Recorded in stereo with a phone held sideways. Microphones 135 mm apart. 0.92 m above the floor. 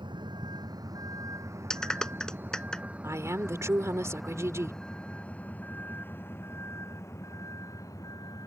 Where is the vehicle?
35° right (ahead or behind); by 8.5 s 30° left (ahead or behind).